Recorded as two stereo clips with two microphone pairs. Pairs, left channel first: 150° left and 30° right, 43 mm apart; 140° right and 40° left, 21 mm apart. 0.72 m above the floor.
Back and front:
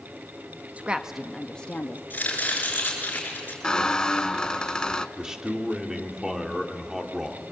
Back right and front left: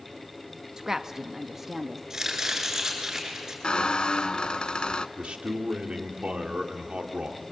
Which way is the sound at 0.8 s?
15° right.